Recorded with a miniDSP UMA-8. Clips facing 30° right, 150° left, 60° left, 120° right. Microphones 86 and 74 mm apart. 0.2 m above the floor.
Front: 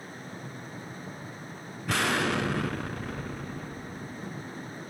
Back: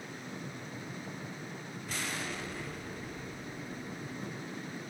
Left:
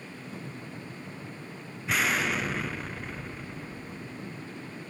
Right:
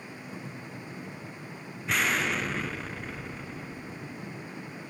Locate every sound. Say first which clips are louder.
1.9 s an explosion: front 12 dB, even; 25° right, 0.7 m